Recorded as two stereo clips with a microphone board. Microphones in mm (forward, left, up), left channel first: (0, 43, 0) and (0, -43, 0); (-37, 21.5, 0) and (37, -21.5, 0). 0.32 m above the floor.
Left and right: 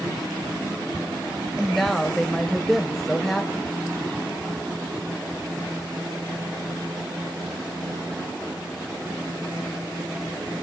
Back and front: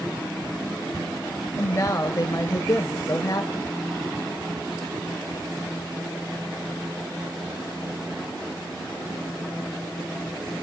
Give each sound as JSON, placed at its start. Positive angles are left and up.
{"t": 1.6, "sound": "a woman speaking", "azimuth_deg": 175, "distance_m": 1.1}